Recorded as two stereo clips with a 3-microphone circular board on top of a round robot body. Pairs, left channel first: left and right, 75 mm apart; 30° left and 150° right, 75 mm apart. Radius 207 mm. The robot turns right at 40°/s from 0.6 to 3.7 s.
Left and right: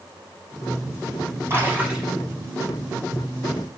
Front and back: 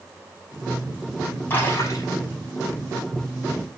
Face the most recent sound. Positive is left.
turn(degrees=55)